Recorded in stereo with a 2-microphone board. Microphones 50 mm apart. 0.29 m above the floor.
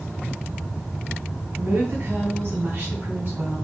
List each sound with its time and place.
1.6 s a woman speaking: 50° right (ahead or behind), 2 m